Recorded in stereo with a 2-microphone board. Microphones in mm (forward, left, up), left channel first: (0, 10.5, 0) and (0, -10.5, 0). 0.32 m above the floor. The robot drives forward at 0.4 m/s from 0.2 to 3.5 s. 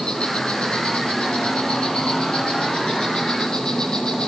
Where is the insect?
55° left (ahead or behind), 3 m; by 4.3 s 40° left (ahead or behind), 3.5 m.